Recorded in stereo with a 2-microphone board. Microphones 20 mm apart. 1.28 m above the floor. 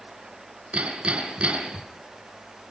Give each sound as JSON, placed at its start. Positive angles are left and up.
{"t": 0.7, "sound": "hammering", "side_deg": -65, "distance_m": 4.0}